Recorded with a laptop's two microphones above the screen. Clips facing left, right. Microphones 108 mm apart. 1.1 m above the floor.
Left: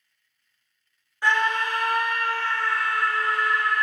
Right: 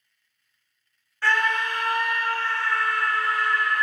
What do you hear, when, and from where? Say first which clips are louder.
1.2 s a scream: left 1 dB; 15° left (ahead or behind), 0.8 m; by 3.8 s 80° left, 1.5 m